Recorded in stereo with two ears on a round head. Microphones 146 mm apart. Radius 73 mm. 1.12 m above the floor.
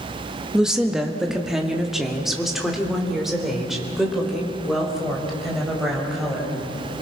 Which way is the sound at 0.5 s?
5° right (ahead or behind).